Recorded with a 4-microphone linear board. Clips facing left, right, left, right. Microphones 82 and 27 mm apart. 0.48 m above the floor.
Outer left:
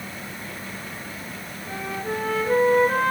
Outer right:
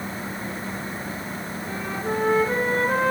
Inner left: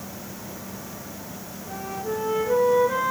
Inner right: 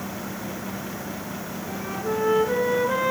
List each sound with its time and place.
1.7 s a flute: 20° right (ahead or behind), 2.5 m